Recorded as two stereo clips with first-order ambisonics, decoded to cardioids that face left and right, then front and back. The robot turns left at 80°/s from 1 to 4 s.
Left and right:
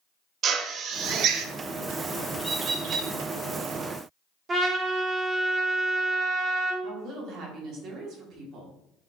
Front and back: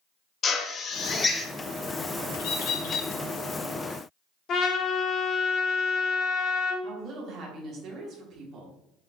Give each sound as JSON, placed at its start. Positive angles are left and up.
{"t": 0.4, "sound": "a drill", "azimuth_deg": -50, "distance_m": 0.5}
{"t": 2.4, "sound": "a bird", "azimuth_deg": 5, "distance_m": 1.1}
{"t": 4.5, "sound": "a trumpet", "azimuth_deg": -30, "distance_m": 0.8}
{"t": 6.8, "sound": "a woman speaking", "azimuth_deg": -130, "distance_m": 1.5}